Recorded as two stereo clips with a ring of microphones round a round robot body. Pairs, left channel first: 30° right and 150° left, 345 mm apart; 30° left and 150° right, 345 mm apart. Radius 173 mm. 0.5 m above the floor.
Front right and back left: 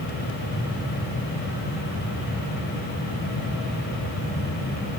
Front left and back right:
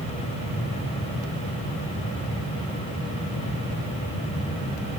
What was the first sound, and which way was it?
Only background noise.